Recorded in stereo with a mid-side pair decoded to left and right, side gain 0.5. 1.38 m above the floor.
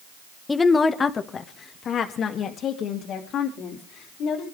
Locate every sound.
0.5 s a woman speaking: 20° left, 1.1 m; by 4.4 s 70° left, 3 m